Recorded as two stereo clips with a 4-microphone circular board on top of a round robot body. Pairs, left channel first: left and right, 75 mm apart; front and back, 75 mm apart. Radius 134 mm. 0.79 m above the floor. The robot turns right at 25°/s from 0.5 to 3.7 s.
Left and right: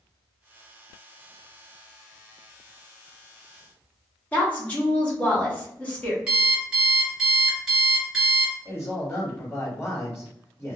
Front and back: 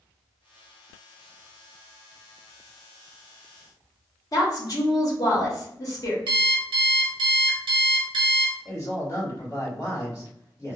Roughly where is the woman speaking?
Ahead.